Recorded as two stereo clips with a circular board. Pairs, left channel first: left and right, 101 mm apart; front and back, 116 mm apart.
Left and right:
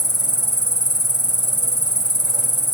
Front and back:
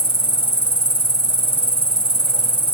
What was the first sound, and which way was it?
An insect, 40° right.